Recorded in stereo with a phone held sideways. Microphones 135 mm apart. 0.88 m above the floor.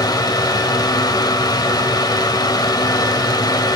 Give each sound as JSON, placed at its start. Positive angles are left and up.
{"t": 0.0, "sound": "a fan", "side_deg": 30, "distance_m": 1.0}